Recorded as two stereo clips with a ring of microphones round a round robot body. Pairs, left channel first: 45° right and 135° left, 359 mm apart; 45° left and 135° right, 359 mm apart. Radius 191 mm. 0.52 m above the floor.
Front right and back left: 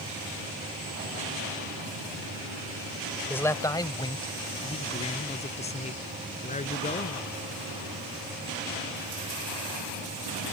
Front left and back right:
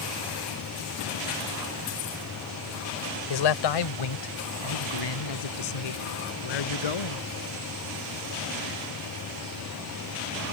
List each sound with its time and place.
3.3 s a man speaking: 40° left; by 7.2 s 25° left